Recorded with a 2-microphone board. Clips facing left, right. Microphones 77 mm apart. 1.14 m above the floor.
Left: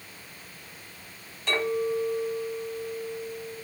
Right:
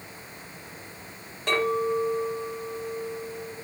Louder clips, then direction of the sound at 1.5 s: Right 2 dB; 45° right (ahead or behind).